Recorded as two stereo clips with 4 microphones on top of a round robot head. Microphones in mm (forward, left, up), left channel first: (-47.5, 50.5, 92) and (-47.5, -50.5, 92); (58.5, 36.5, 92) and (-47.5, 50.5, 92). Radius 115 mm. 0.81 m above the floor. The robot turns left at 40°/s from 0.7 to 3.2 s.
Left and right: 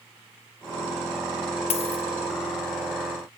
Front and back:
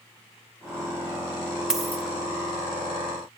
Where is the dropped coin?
90° left, 0.7 m; by 2.0 s 75° left, 0.7 m.